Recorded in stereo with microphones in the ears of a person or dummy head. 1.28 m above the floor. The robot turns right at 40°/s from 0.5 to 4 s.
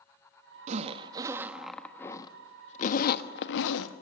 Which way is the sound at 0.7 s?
40° right (ahead or behind).